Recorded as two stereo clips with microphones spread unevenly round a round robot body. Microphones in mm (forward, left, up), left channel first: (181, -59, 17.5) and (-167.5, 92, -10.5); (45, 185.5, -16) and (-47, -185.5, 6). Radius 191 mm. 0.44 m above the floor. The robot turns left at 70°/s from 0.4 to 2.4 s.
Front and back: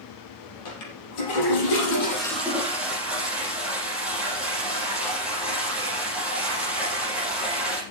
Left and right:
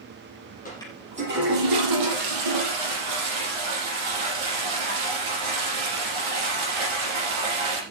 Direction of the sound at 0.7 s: 5° left.